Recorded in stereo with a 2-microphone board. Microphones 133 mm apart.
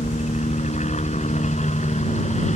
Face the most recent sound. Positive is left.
turn(degrees=60)  # may be behind; listen again after turning